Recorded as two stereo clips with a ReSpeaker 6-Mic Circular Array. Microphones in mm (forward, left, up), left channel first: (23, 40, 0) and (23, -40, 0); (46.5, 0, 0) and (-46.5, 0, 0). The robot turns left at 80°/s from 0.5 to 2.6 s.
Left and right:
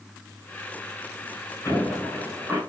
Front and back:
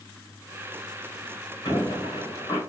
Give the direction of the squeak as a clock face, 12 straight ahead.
11 o'clock.